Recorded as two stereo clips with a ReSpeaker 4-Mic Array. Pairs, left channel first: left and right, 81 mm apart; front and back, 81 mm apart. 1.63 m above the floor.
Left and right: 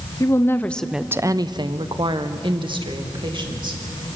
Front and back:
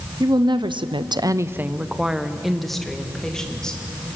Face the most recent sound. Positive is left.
turn(degrees=-80)